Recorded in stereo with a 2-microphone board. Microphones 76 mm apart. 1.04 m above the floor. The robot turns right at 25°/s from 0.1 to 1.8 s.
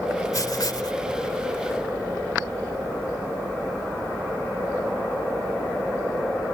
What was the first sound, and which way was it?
Writing, 50° left (ahead or behind).